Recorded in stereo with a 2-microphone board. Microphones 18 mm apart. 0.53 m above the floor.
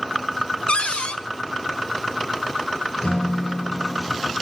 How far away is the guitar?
About 3 m.